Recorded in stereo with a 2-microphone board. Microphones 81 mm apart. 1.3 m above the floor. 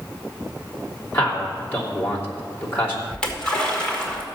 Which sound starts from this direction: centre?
A splash, at 3.1 s.